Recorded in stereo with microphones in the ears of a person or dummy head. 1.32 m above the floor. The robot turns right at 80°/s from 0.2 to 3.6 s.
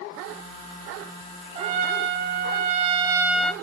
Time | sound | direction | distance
1.6 | a trumpet | 145° right | 0.7 m